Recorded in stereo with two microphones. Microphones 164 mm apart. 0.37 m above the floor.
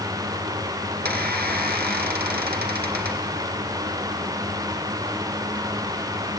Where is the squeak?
80° right, 2 m.